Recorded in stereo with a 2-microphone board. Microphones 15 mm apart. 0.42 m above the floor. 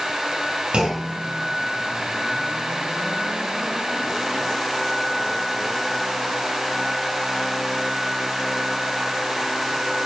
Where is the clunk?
75° right (ahead or behind), 3 m.